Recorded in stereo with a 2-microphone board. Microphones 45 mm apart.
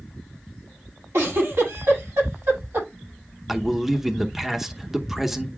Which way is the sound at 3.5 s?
5° right (ahead or behind).